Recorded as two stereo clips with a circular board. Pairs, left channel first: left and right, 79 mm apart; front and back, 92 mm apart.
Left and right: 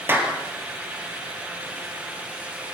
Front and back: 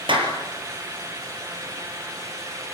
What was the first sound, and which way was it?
A clap, 155° right.